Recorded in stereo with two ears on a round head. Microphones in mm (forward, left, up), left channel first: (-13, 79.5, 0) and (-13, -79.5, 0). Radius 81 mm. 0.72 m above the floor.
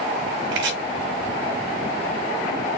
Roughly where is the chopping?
Right.